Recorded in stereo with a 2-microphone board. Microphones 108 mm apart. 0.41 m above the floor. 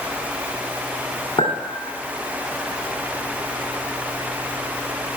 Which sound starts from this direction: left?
A clink, at 1.4 s.